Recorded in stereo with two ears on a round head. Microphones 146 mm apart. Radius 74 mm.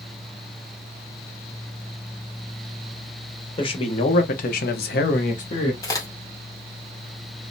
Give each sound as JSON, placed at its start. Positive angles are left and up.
{"t": 3.6, "sound": "a man speaking", "side_deg": 30, "distance_m": 1.1}
{"t": 5.8, "sound": "a crack", "side_deg": 20, "distance_m": 1.1}